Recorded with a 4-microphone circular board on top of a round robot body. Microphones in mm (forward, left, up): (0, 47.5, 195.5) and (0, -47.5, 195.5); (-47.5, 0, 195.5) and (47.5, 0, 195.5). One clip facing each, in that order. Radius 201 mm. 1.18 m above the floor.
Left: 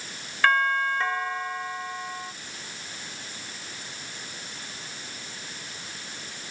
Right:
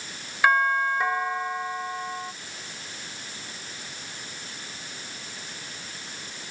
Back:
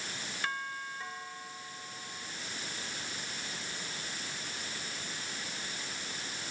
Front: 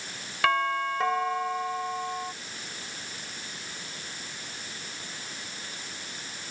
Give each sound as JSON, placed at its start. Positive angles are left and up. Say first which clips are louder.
{"t": 0.4, "sound": "a doorbell", "louder": "right 1 dB, front 14 dB", "azimuth_deg": -10}